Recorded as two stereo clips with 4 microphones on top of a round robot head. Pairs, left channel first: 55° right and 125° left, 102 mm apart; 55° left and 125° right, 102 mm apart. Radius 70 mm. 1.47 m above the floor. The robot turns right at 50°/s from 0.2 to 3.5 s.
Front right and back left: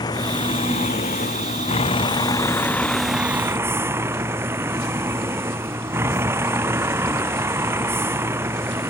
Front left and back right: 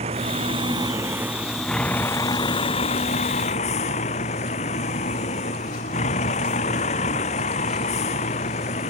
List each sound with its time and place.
0.0 s a vehicle: 105° right; by 8.9 s 60° left